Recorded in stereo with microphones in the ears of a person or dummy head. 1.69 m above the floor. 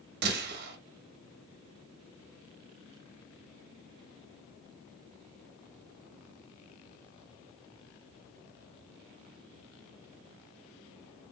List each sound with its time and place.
0.2 s a gunshot: 60° right (ahead or behind), 0.9 m